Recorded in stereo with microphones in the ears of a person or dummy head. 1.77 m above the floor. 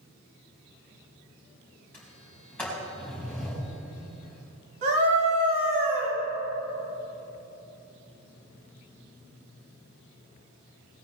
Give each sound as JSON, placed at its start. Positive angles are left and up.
{"t": 1.9, "sound": "a sliding door", "side_deg": 5, "distance_m": 3.5}
{"t": 4.8, "sound": "a scream", "side_deg": -55, "distance_m": 4.5}